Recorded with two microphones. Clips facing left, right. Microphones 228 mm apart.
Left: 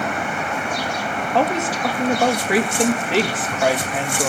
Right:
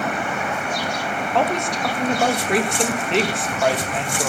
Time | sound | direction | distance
1.3 | a woman speaking | 5° left (ahead or behind) | 2.5 m